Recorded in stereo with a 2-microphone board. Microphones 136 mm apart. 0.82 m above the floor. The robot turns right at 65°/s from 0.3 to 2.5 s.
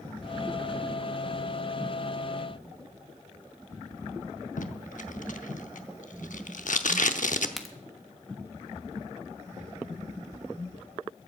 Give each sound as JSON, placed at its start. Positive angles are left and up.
{"t": 4.6, "sound": "tape being pulled", "side_deg": 70, "distance_m": 0.8}
{"t": 7.6, "sound": "a crack", "side_deg": 0, "distance_m": 1.2}